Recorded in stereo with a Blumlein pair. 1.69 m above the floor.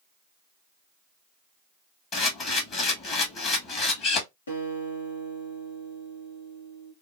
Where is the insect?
No insect in this recording.